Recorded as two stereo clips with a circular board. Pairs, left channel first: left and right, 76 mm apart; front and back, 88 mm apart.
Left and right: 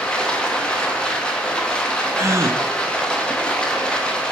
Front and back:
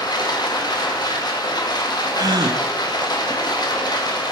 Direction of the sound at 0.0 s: 15° left.